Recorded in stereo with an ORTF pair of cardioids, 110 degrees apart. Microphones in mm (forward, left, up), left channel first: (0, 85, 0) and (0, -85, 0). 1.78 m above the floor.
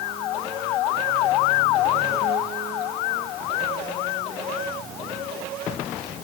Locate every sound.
Only background noise.